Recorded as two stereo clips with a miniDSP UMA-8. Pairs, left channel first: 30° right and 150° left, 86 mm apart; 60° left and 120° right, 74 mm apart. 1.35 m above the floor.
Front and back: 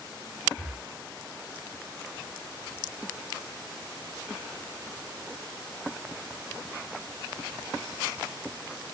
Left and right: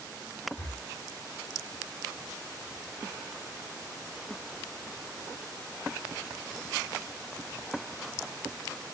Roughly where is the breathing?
Left.